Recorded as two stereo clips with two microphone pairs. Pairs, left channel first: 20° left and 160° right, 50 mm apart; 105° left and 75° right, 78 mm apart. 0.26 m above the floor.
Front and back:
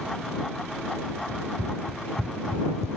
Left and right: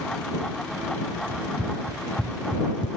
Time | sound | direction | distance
1.3 | running footsteps | 150° right | ?